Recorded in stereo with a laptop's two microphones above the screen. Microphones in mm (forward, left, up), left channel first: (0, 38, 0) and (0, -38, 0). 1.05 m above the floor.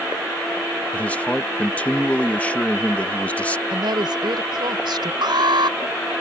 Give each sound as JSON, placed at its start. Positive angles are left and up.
{"t": 0.9, "sound": "a man speaking", "side_deg": 20}
{"t": 3.7, "sound": "a woman speaking", "side_deg": -80}
{"t": 5.2, "sound": "an alarm", "side_deg": -80}